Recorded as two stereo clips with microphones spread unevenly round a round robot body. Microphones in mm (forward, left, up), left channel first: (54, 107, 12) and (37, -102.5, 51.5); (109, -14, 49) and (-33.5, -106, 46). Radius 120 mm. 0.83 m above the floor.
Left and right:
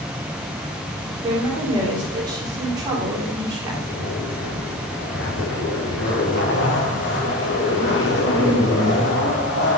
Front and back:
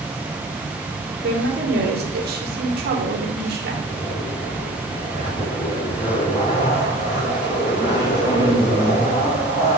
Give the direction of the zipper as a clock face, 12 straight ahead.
9 o'clock.